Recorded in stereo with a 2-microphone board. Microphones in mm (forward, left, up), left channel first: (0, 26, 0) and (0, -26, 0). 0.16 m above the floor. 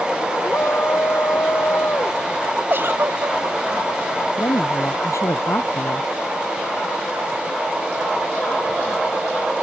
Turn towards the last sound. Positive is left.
turn(degrees=85)